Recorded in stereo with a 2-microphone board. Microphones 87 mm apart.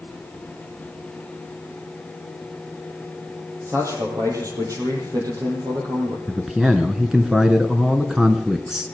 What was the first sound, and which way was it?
A man speaking, 35° right (ahead or behind).